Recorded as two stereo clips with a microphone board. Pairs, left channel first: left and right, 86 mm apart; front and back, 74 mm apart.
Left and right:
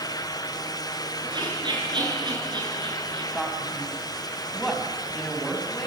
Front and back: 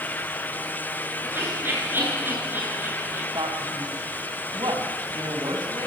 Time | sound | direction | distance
1.2 | laughter | 120° right | 9 m
3.3 | a man speaking | 175° left | 4.5 m